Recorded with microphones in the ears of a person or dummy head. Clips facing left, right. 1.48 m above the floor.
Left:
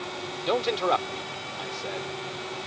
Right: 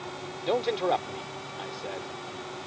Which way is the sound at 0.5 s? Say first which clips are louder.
Left 1 dB; centre (ahead or behind).